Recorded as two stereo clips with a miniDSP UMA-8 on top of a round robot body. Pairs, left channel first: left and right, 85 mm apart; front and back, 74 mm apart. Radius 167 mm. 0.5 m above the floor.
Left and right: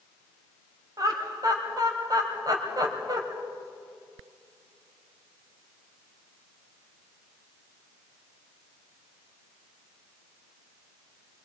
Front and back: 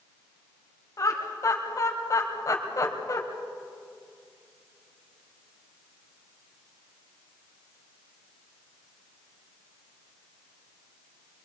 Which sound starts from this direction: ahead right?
Laughter, at 1.0 s.